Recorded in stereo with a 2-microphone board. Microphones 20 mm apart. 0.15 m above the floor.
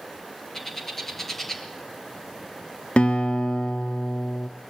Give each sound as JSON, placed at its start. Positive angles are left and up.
{"t": 0.5, "sound": "a bird", "side_deg": 15, "distance_m": 3.0}
{"t": 3.0, "sound": "a guitar", "side_deg": 60, "distance_m": 1.5}